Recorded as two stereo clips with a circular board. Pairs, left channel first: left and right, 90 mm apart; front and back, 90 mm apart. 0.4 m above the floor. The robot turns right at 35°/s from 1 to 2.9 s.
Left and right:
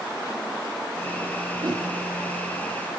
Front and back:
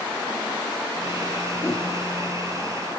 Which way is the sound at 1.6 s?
60° right.